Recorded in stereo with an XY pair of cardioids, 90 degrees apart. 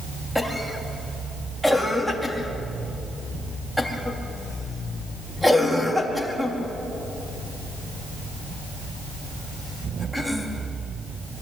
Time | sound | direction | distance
0.3 | a cough | straight ahead | 4.5 m